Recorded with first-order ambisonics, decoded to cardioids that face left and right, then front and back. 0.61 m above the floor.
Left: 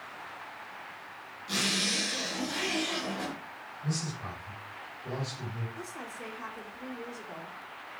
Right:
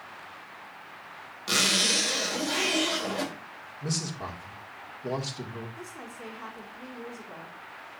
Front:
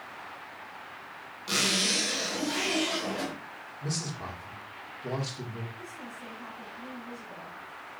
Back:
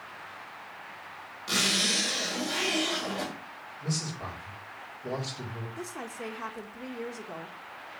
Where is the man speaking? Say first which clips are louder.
Right 4 dB, back 1 dB; 80° right, 1.8 m.